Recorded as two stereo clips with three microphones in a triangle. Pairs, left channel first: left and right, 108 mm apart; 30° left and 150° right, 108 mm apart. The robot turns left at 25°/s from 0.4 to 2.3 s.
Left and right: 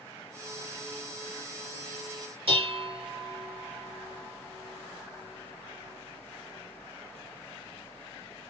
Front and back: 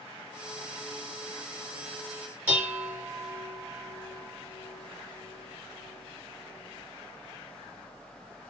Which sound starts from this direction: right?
Dishes clattering, at 2.5 s.